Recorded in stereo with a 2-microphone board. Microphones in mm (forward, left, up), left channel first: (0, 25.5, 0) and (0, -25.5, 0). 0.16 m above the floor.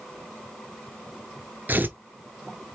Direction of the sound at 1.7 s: 40° right (ahead or behind).